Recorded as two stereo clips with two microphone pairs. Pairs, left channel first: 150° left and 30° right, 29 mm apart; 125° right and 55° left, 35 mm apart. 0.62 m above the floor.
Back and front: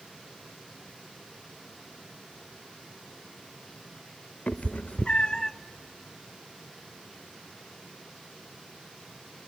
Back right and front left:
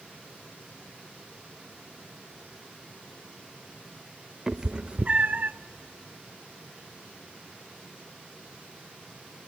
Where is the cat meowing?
135° left, 0.7 m; by 5.5 s 80° left, 0.5 m.